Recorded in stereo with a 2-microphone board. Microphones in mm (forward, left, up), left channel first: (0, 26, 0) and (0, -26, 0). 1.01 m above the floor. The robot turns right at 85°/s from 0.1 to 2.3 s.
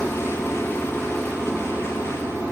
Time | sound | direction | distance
0.0 | running water | 85° left | 1.1 m